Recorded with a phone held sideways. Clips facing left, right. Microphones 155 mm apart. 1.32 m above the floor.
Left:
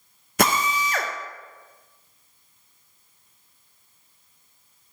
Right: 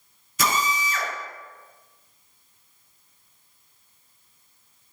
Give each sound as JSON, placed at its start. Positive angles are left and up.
{"t": 0.4, "sound": "a drill", "side_deg": 65, "distance_m": 0.8}